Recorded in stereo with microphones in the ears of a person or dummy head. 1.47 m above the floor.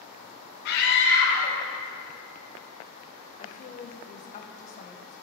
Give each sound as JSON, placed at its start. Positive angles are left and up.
{"t": 0.7, "sound": "a scream", "side_deg": 65, "distance_m": 1.3}
{"t": 3.4, "sound": "a woman speaking", "side_deg": 35, "distance_m": 0.8}